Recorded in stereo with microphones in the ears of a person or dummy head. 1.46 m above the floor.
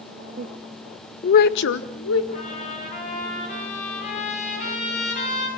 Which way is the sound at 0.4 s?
35° right (ahead or behind).